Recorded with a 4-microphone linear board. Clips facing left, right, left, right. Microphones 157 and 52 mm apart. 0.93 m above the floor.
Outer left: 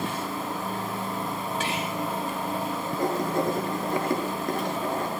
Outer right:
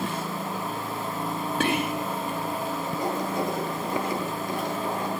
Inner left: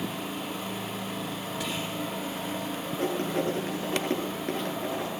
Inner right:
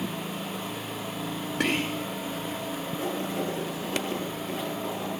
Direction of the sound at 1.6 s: 65° right (ahead or behind).